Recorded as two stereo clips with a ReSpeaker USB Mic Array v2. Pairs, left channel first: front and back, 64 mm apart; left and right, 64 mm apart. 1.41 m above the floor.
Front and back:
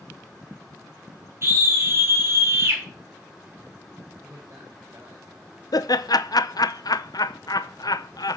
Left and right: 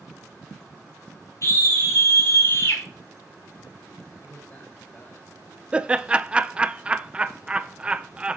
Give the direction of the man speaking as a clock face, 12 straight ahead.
7 o'clock.